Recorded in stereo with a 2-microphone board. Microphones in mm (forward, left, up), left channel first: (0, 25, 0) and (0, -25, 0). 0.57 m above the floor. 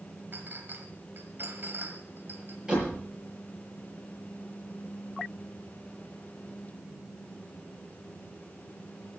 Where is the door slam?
20° right (ahead or behind), 8 m.